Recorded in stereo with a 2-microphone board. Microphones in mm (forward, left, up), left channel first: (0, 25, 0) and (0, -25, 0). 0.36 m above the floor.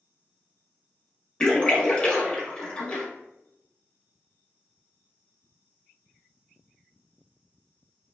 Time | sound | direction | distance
1.4 | a splash | 25° left (ahead or behind) | 0.7 m